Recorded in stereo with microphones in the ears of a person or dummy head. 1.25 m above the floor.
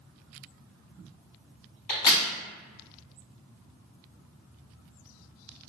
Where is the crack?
60° left (ahead or behind), 1.1 m.